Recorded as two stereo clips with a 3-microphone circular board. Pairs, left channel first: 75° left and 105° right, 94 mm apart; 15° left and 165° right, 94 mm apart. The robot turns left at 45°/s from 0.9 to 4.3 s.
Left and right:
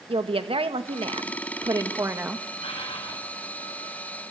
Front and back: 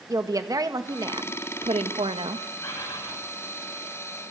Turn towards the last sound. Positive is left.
turn(degrees=0)